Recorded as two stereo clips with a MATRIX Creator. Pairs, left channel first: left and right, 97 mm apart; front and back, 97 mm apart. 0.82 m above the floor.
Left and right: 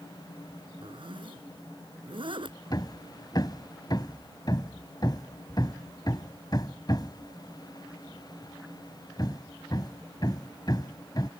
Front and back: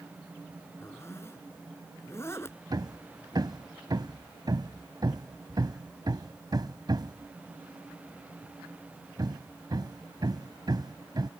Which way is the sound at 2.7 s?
135° left.